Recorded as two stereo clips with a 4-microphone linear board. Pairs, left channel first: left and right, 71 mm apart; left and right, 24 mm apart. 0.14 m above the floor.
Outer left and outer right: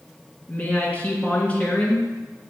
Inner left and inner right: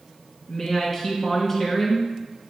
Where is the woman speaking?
25° left (ahead or behind), 1.9 m.